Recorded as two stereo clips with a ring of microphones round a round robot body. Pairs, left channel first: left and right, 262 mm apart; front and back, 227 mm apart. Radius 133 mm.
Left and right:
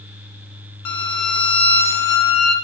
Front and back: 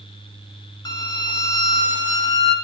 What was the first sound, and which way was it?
A violin, 75° left.